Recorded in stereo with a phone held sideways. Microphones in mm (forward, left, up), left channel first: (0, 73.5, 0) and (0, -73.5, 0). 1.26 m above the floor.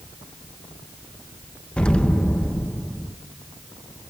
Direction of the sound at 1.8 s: 5° left (ahead or behind).